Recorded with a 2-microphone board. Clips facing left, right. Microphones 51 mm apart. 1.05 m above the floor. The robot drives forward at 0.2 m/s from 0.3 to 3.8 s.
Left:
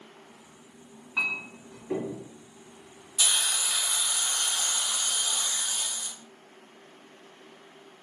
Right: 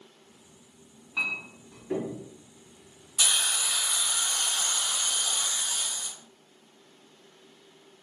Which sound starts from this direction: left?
A clink, at 1.2 s.